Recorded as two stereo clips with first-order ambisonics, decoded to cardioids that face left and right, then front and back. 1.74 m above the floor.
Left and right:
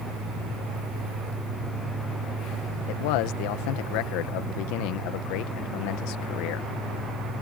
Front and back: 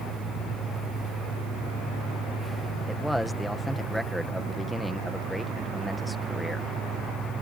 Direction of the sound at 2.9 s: 85° left.